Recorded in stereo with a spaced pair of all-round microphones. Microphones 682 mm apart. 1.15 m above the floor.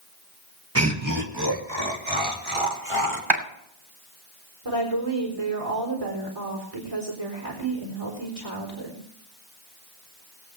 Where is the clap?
40° right (ahead or behind), 2.5 m.